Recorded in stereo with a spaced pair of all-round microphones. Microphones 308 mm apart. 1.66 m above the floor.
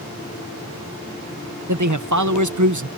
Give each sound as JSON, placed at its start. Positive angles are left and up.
{"t": 1.7, "sound": "a man speaking", "side_deg": -80}